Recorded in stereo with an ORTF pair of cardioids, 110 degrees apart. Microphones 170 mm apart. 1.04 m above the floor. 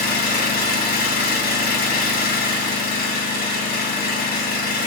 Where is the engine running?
60° left, 1.0 m.